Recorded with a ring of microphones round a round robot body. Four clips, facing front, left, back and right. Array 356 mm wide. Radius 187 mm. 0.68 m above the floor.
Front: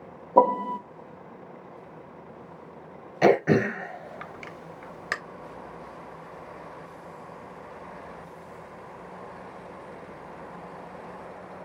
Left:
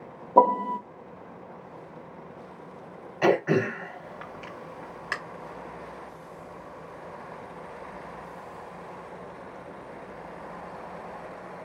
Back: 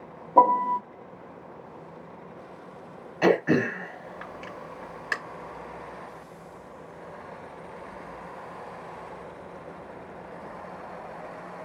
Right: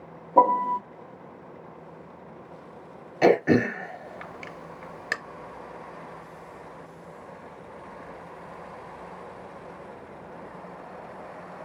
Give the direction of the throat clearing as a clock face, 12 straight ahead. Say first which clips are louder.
Right 3 dB, front 2 dB; 2 o'clock.